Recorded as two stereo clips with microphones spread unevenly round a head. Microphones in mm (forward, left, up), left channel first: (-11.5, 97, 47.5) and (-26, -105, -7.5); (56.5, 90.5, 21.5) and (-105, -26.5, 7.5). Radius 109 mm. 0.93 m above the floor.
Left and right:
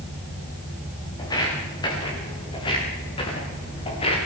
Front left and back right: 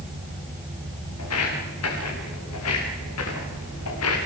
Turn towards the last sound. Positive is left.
turn(degrees=25)